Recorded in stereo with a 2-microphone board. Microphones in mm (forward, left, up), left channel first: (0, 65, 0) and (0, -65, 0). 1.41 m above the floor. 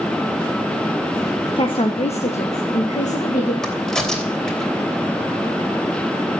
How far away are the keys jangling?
I don't hear keys jangling.